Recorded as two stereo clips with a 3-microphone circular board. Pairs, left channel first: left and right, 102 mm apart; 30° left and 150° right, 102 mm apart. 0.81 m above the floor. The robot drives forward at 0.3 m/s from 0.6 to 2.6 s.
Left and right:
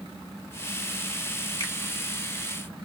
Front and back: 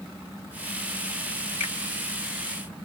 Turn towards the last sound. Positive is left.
turn(degrees=145)